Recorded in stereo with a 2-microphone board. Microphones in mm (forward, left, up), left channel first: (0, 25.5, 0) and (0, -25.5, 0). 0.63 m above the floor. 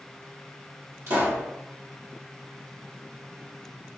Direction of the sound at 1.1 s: 55° right (ahead or behind).